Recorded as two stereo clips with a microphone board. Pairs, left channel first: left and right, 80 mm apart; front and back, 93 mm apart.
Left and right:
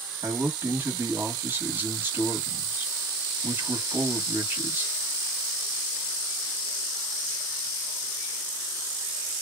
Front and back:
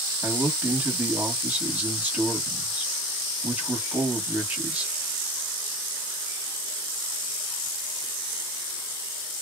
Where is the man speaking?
125° right, 1.2 m.